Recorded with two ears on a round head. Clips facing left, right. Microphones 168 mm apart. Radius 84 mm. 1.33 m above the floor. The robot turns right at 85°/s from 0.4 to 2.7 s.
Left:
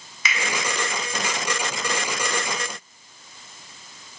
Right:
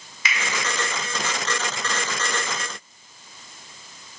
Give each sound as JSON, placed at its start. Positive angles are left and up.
{"t": 0.2, "sound": "a finger snap", "side_deg": 85, "distance_m": 1.8}